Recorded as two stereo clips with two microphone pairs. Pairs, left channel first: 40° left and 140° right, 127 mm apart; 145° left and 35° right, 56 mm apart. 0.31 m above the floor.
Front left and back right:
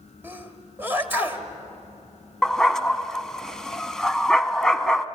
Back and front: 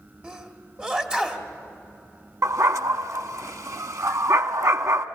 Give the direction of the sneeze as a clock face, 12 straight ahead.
3 o'clock.